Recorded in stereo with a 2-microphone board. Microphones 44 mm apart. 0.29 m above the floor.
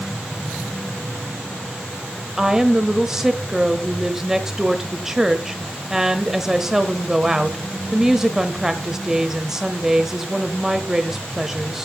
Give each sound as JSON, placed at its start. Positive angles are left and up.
{"t": 2.4, "sound": "a woman speaking", "side_deg": -10, "distance_m": 1.1}